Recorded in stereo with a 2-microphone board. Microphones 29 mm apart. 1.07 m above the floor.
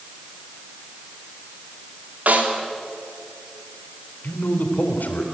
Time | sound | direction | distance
2.3 | a snare drum | 60° right (ahead or behind) | 2.5 m
4.2 | a man speaking | 75° left (ahead or behind) | 3 m